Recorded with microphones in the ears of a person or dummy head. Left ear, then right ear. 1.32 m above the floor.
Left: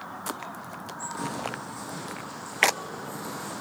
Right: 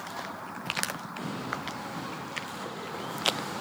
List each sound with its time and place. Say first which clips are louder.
1.2 s footsteps: left 4 dB; 60° left (ahead or behind), 3 m; by 3.6 s 10° left (ahead or behind), 3 m